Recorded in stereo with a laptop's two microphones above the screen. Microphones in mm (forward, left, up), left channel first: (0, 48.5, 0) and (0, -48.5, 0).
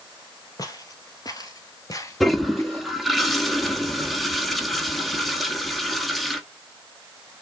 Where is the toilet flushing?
Centre (ahead or behind), 1.3 m.